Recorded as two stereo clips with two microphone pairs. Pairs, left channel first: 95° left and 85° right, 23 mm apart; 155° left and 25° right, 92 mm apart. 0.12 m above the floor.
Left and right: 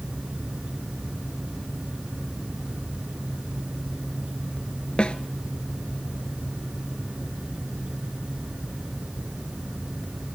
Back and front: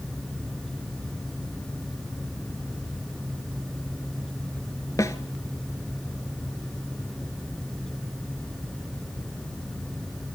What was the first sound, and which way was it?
A snare drum, 115° left.